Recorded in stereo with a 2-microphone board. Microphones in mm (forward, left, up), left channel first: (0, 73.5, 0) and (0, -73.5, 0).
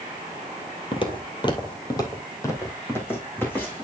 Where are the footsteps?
35° left (ahead or behind), 1.5 m; by 3.9 s 10° left (ahead or behind), 4.5 m.